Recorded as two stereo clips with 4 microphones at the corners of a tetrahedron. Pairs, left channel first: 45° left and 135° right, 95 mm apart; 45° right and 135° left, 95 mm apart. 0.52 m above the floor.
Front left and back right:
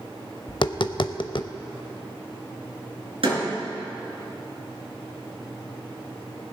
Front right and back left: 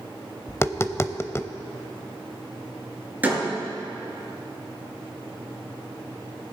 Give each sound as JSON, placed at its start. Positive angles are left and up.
{"t": 0.5, "sound": "tapping", "azimuth_deg": 15, "distance_m": 0.5}
{"t": 3.2, "sound": "a door slam", "azimuth_deg": -155, "distance_m": 5.5}